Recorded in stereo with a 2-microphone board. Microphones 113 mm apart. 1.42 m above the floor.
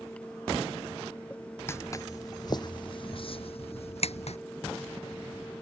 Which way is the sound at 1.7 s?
20° left (ahead or behind).